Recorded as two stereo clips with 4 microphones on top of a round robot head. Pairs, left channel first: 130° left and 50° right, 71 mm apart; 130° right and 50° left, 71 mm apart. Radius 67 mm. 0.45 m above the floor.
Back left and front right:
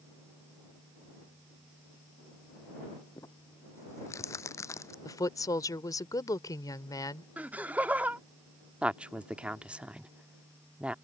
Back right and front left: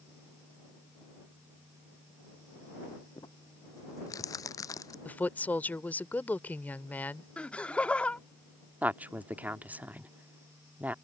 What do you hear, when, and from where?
3.2 s crumpling: 175° right
5.0 s a woman speaking: 165° left
7.4 s laughter: 85° right
8.8 s a woman speaking: 5° left